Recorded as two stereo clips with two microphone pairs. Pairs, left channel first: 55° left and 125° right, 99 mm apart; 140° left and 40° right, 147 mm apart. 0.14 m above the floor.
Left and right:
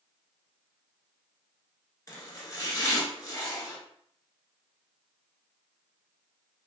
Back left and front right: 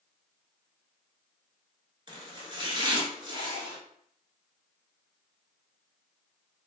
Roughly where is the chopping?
Ahead.